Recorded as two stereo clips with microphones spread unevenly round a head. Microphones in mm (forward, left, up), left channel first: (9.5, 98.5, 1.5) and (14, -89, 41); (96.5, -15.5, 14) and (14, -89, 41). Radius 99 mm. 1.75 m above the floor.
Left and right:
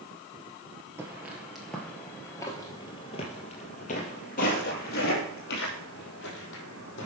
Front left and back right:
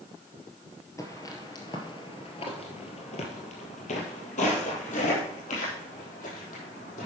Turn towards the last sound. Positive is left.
turn(degrees=65)